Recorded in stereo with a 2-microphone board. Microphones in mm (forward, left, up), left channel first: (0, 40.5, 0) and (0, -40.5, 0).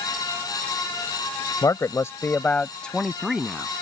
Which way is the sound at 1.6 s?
50° left (ahead or behind).